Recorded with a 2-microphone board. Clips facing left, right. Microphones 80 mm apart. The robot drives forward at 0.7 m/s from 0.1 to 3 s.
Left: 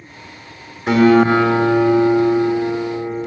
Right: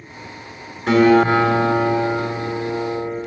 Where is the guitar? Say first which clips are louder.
Left 1 dB; 10° left (ahead or behind), 1.0 m; by 3.2 s 5° left (ahead or behind), 2.5 m.